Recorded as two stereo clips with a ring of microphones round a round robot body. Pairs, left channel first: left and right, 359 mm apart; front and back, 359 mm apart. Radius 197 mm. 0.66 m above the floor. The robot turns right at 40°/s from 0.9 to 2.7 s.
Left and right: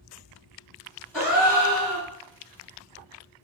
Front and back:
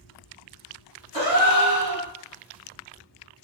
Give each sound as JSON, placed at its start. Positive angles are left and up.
{"t": 1.1, "sound": "a gasp", "azimuth_deg": 175, "distance_m": 1.5}